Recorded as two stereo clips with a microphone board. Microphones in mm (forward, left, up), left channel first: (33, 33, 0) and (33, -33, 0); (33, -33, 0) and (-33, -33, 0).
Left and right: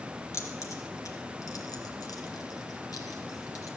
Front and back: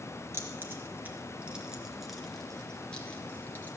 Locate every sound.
0.3 s keys jangling: 130° left, 2.5 m; by 3.7 s 60° left, 2.5 m